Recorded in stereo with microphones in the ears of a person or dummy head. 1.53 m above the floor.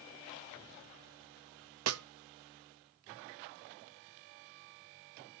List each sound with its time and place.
1.9 s a snare drum: 80° right, 0.5 m